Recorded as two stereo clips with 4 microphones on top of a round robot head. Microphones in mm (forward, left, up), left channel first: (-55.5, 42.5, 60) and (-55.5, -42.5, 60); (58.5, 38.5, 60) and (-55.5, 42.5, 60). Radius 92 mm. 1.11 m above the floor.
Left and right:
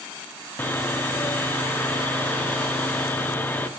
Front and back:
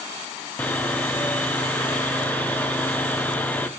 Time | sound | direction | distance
0.6 | sawing | 60° left | 0.5 m